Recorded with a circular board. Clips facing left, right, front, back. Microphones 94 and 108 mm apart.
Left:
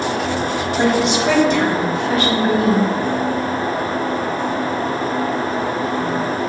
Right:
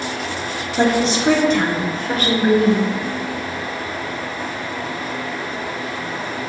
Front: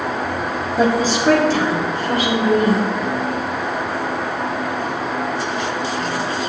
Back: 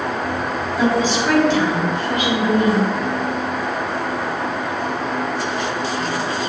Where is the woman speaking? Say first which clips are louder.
Even, front 1 dB; 40° right, 1.8 m; by 2.9 s 50° right, 4 m.